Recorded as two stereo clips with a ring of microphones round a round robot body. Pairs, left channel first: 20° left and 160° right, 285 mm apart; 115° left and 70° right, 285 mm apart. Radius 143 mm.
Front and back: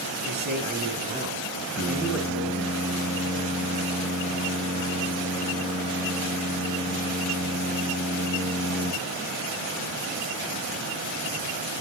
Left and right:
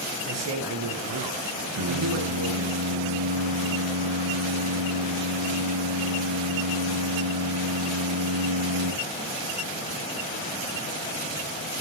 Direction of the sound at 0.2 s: 105° right.